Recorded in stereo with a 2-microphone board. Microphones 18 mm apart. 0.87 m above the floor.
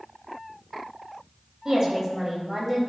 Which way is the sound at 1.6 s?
35° right (ahead or behind).